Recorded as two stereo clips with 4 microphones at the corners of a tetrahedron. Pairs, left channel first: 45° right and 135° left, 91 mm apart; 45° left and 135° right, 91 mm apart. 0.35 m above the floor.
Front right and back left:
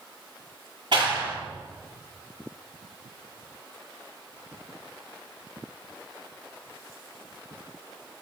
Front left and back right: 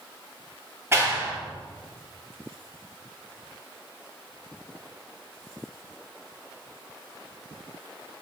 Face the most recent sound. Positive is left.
turn(degrees=160)